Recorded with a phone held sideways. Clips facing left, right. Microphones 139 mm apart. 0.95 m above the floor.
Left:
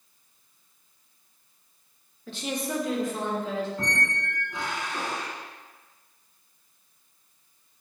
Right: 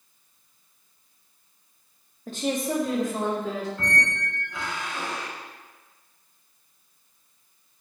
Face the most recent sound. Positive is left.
turn(degrees=20)  # may be behind; listen again after turning